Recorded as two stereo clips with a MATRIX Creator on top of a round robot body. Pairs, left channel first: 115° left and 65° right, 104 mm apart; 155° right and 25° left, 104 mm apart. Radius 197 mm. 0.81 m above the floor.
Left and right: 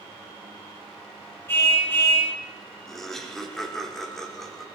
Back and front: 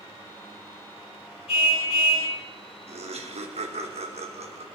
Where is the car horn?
Straight behind, 6.5 m.